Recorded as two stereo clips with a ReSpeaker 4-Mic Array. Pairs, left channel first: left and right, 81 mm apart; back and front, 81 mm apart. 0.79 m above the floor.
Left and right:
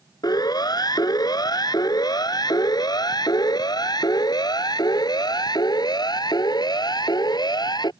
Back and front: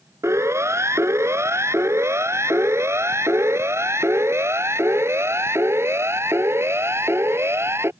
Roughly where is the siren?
Ahead left.